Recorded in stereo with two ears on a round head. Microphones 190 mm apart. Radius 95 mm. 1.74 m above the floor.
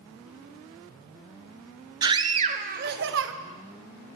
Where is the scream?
20° right (ahead or behind), 1.6 m; by 3.3 s 65° right (ahead or behind), 1.3 m.